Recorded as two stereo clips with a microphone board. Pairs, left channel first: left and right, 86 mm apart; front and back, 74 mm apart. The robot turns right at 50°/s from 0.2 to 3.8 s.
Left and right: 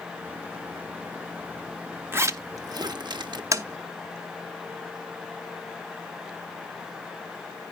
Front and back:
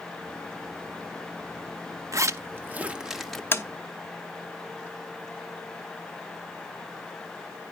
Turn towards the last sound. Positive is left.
turn(degrees=-40)